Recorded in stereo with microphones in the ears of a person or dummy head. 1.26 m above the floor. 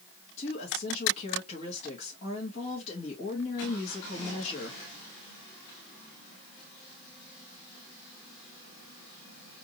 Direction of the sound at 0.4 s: 40° left (ahead or behind).